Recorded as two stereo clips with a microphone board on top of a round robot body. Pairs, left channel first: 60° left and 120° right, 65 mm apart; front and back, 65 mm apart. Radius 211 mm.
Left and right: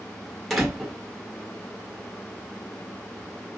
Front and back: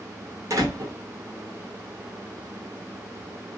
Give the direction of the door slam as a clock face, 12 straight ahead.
7 o'clock.